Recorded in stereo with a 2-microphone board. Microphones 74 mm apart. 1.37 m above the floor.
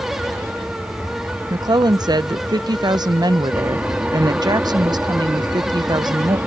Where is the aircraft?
20° right (ahead or behind).